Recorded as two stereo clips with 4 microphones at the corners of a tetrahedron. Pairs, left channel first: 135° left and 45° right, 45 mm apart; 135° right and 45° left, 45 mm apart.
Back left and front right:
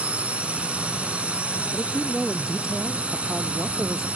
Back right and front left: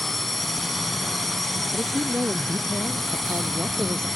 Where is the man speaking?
40° left.